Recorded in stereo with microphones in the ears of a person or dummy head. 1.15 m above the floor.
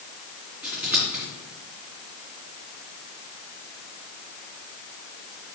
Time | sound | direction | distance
0.6 | scissors | 10° right (ahead or behind) | 2.5 m